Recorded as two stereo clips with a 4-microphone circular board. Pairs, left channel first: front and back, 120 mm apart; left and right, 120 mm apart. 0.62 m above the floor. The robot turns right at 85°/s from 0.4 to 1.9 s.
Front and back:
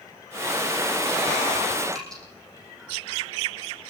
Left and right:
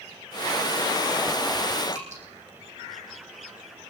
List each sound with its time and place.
1.9 s dripping: 85° right, 10 m